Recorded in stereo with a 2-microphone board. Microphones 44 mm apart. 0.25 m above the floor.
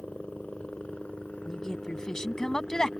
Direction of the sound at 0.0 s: 30° left (ahead or behind).